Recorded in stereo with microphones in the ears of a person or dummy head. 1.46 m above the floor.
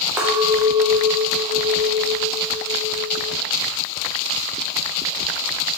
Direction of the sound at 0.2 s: 20° right (ahead or behind).